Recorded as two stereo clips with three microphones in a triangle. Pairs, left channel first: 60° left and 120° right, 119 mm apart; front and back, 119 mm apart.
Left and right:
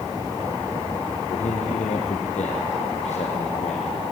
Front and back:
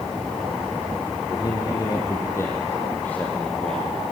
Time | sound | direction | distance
1.3 | a man speaking | 55° left | 5.5 m